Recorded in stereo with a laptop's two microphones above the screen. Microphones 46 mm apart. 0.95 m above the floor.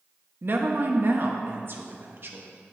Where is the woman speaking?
55° right (ahead or behind), 1.0 m.